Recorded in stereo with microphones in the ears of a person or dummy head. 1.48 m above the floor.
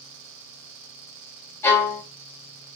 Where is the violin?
15° left (ahead or behind), 0.8 m.